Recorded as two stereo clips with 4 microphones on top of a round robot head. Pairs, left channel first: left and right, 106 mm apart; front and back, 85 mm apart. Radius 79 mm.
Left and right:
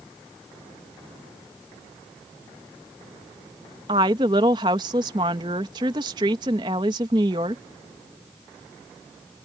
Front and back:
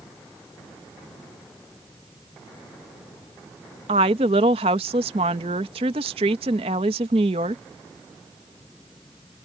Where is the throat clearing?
No throat clearing in this recording.